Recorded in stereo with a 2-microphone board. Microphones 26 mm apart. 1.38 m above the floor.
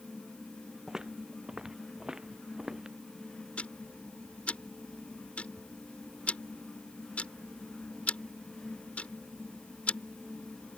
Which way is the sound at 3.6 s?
55° left (ahead or behind).